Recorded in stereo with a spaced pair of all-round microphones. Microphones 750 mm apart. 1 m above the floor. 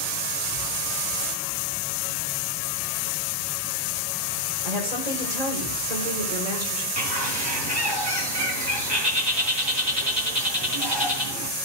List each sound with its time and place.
4.6 s a woman speaking: 60° right (ahead or behind), 5 m
7.0 s a bird: 35° right (ahead or behind), 3.5 m